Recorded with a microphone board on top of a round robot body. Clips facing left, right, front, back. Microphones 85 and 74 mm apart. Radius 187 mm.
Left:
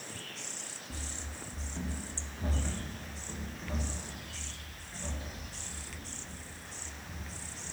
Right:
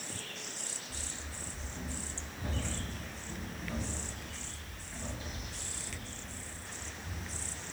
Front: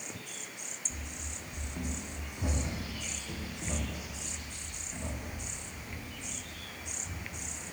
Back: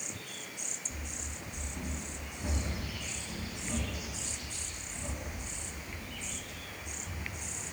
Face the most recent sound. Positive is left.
turn(degrees=-10)